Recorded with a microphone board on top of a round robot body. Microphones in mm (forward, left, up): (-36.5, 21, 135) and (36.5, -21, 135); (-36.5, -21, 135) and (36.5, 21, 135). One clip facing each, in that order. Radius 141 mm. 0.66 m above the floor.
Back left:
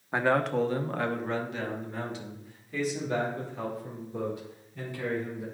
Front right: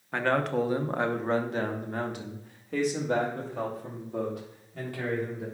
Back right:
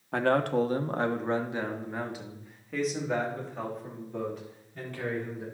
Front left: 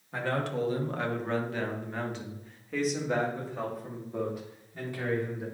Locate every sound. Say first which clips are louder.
0.1 s a man speaking: back left 1 dB, back right 6 dB; 135° right, 1.1 m; by 5.5 s 50° right, 4 m